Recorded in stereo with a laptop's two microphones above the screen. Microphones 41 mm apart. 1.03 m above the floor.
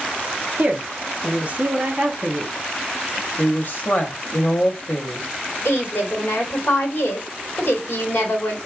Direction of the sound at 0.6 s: 35° right (ahead or behind).